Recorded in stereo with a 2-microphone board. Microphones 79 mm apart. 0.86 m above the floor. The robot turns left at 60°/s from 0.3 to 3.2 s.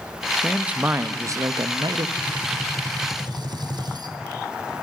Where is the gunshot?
15° right, 1.0 m; by 4.1 s 75° right, 1.0 m.